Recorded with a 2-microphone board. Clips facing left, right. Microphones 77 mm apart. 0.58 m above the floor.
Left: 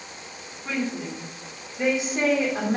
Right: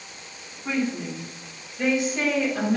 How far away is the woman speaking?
About 1.3 m.